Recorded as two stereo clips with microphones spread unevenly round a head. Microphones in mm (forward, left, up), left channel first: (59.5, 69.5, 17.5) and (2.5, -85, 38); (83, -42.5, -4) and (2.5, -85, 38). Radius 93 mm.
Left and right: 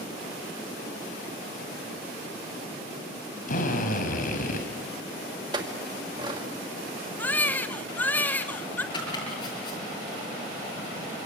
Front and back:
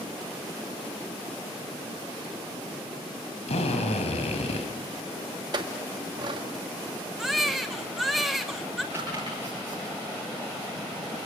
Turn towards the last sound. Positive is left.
turn(degrees=140)